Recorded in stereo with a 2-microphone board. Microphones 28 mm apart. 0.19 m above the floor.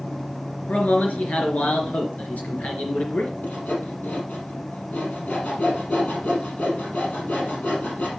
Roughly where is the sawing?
Left.